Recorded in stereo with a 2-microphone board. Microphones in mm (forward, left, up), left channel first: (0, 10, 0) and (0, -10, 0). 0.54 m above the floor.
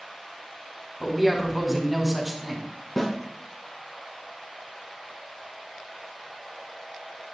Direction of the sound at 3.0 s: 15° left (ahead or behind).